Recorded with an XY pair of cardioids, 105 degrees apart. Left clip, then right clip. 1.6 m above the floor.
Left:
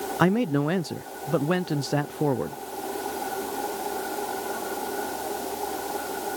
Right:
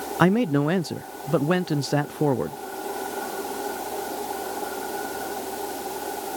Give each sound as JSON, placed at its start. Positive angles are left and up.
{"t": 0.2, "sound": "a man speaking", "azimuth_deg": -15}